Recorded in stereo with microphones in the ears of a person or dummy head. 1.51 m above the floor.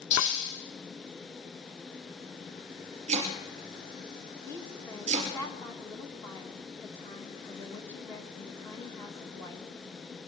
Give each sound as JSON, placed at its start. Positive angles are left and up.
{"t": 0.1, "sound": "breaking glass", "side_deg": 45, "distance_m": 8.5}
{"t": 3.1, "sound": "chopping", "side_deg": -40, "distance_m": 3.5}
{"t": 4.4, "sound": "a woman speaking", "side_deg": 20, "distance_m": 1.4}